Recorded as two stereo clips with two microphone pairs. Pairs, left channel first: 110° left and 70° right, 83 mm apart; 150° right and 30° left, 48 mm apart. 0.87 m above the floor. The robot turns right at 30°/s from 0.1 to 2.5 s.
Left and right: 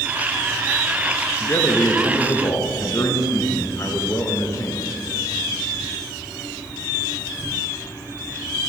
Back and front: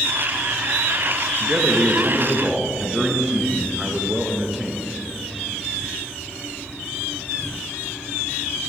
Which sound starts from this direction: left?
A man speaking, at 1.4 s.